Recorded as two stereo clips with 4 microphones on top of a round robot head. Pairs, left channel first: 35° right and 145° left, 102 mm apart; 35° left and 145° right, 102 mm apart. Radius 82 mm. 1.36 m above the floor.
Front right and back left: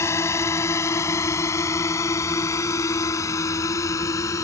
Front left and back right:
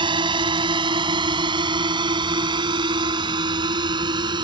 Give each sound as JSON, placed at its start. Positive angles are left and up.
{"t": 0.0, "sound": "a drone", "azimuth_deg": -100}